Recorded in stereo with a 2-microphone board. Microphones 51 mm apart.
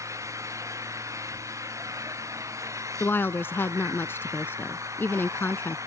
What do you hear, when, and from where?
0.0 s an engine running: 80° right
3.0 s a woman speaking: 45° left (ahead or behind)